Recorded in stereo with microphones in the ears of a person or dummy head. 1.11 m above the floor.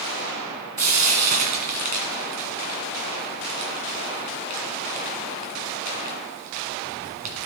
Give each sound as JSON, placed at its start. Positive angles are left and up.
{"t": 0.8, "sound": "frying", "side_deg": -45, "distance_m": 1.8}